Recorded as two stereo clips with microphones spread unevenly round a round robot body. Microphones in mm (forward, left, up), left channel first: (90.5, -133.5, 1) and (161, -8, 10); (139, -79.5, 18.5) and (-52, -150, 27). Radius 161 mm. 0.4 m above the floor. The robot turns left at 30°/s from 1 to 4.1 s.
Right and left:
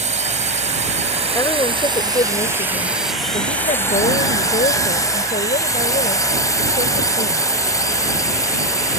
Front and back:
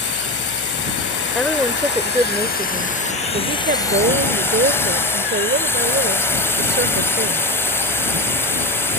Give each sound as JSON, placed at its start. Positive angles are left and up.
{"t": 0.0, "sound": "a drone", "azimuth_deg": 35}
{"t": 1.4, "sound": "a woman speaking", "azimuth_deg": -65}